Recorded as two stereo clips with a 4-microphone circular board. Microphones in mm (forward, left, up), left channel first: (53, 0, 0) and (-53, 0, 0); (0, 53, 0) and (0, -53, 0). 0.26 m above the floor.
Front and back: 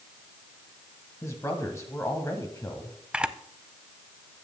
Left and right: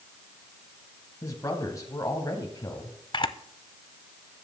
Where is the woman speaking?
50° left, 1.3 m.